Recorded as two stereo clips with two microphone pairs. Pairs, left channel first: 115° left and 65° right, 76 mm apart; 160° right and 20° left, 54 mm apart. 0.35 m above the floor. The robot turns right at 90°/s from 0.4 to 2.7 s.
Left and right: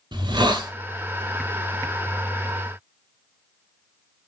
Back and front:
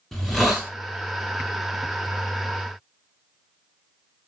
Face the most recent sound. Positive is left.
turn(degrees=135)